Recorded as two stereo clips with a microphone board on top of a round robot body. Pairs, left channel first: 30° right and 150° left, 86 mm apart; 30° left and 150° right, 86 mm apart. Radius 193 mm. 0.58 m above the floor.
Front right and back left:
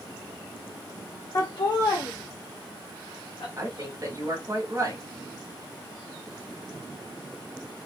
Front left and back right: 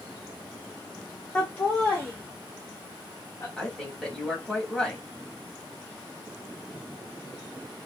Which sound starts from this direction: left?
A woman speaking, at 3.6 s.